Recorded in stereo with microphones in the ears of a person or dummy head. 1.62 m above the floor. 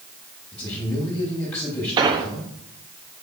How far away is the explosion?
About 0.7 m.